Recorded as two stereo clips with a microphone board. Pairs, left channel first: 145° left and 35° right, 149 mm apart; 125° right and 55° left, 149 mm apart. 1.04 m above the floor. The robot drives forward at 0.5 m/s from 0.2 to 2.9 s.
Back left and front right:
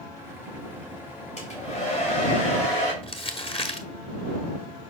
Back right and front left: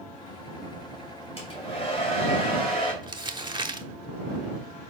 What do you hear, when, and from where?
1.4 s a hair dryer: 175° right, 2 m
3.0 s crumpling: 105° left, 0.8 m